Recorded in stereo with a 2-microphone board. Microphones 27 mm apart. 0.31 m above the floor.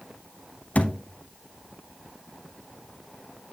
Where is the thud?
65° left (ahead or behind), 0.8 m.